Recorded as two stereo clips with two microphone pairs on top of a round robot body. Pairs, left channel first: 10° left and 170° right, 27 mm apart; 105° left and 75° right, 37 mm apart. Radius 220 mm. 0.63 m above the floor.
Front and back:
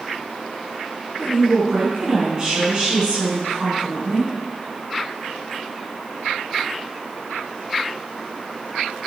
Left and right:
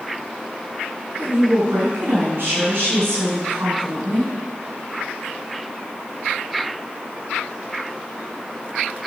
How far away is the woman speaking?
About 7 m.